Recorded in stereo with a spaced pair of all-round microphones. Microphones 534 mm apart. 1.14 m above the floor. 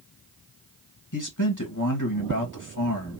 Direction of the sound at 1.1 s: 35° left (ahead or behind).